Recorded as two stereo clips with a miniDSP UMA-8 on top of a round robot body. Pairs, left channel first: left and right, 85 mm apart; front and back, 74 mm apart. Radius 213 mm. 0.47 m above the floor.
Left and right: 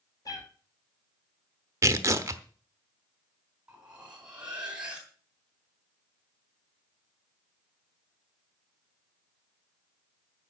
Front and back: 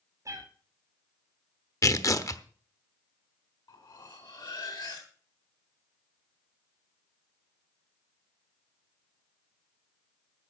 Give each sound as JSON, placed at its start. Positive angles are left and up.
{"t": 0.2, "sound": "a cat meowing", "azimuth_deg": 135, "distance_m": 1.8}
{"t": 1.8, "sound": "tearing paper", "azimuth_deg": -35, "distance_m": 1.1}
{"t": 3.7, "sound": "cutlery clinking", "azimuth_deg": -10, "distance_m": 4.0}